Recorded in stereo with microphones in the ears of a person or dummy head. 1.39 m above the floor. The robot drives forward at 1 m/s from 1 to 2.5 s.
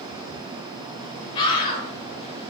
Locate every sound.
1.4 s a scream: 25° left (ahead or behind), 3 m; by 1.9 s 30° left (ahead or behind), 2.5 m